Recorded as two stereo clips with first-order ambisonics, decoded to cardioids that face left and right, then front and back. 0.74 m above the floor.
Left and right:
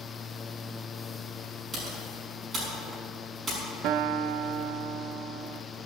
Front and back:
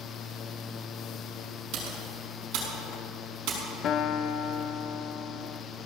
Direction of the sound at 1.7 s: 160° right.